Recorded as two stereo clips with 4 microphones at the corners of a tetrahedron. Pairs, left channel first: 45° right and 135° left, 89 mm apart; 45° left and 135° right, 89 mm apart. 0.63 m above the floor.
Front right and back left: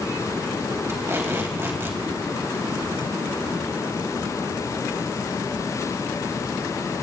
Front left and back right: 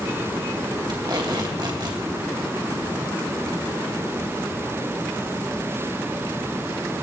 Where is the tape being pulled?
165° right, 2.5 m.